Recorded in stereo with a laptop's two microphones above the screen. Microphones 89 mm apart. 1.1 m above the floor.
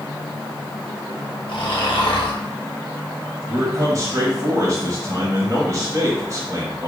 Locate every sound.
1.5 s snoring: 70° left (ahead or behind), 0.8 m
3.5 s a man speaking: 35° right (ahead or behind), 1.1 m